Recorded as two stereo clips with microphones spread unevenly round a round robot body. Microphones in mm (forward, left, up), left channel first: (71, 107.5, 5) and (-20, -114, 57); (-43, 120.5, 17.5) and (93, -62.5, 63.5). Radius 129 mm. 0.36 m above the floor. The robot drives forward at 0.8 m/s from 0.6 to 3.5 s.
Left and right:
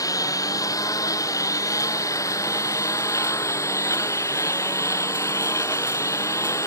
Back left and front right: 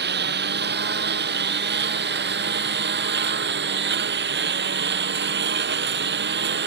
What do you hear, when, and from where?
0.0 s a lawn mower: 10° right